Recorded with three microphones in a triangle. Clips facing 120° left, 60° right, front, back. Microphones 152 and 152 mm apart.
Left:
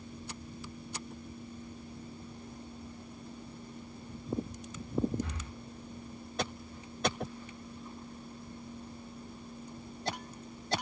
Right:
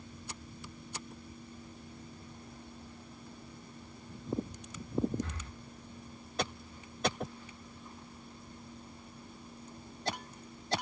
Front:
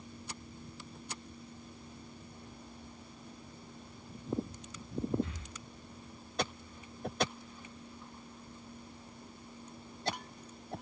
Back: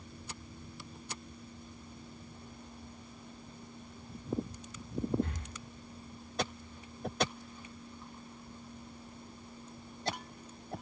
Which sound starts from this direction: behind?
Breathing, at 5.2 s.